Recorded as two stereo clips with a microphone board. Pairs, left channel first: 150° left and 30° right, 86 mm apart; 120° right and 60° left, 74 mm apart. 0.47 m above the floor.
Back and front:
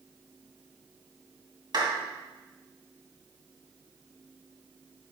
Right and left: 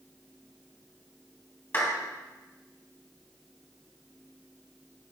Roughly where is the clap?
Ahead right.